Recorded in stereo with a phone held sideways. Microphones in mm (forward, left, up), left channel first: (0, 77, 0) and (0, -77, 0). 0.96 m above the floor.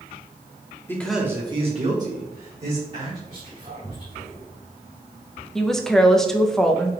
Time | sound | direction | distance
0.9 | a man speaking | 15° left (ahead or behind) | 0.9 m
3.3 | whispering | 50° right (ahead or behind) | 2 m
5.5 | a woman speaking | 5° left (ahead or behind) | 0.5 m